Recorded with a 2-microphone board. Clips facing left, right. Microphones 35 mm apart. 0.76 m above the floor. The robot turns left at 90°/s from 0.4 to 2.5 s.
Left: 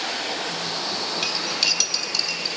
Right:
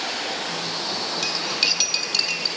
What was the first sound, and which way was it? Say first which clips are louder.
Cutlery clinking: right 1 dB; 20° left (ahead or behind).